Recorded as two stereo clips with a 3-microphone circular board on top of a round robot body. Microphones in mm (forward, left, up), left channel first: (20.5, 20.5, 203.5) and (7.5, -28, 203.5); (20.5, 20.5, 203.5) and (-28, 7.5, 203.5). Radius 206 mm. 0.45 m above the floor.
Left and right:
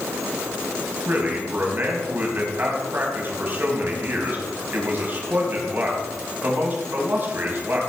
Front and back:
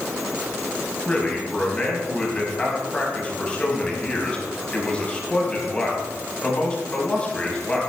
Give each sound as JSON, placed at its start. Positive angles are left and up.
{"t": 1.1, "sound": "a man speaking", "azimuth_deg": -55, "distance_m": 3.5}